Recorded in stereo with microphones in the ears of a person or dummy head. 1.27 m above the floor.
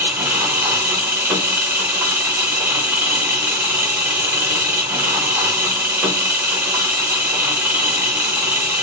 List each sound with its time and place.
0.0 s an engine running: 15° right (ahead or behind), 1.0 m